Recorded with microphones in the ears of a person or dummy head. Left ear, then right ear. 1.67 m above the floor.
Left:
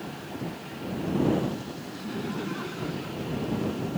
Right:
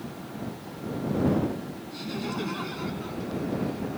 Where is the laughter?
30° right (ahead or behind); by 3.8 s 20° right (ahead or behind).